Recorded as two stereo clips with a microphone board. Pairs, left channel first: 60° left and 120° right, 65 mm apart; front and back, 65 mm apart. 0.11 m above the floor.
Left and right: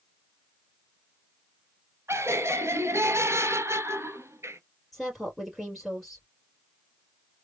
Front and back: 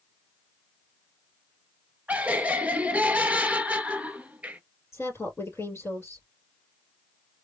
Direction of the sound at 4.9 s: 30° right.